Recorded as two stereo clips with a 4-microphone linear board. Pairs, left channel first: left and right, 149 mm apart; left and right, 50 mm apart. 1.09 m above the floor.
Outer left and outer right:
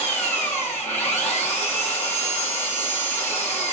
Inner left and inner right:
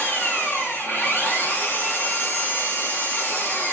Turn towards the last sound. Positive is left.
turn(degrees=50)  # may be behind; listen again after turning